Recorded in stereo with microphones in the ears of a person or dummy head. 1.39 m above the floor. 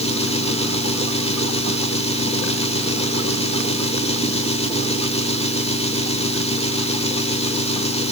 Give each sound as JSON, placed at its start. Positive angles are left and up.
{"t": 0.0, "sound": "an engine running", "side_deg": 30, "distance_m": 3.0}